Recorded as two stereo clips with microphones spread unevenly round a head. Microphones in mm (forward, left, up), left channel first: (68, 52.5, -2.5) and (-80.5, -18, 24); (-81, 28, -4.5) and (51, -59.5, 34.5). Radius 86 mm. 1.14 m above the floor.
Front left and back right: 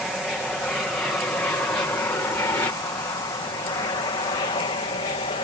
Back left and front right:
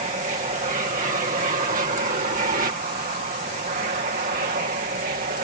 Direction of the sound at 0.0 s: 60° right.